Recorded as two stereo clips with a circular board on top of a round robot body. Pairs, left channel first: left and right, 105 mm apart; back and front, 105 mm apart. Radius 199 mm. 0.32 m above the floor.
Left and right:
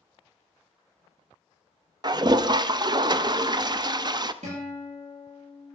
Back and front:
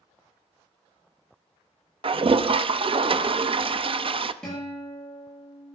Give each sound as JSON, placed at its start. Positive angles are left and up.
{"t": 2.0, "sound": "a toilet flushing", "azimuth_deg": -40, "distance_m": 0.7}
{"t": 4.4, "sound": "a guitar", "azimuth_deg": -100, "distance_m": 7.0}